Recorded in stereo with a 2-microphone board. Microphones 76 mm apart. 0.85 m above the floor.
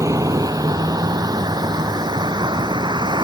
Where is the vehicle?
45° right (ahead or behind); by 3.2 s 65° right (ahead or behind).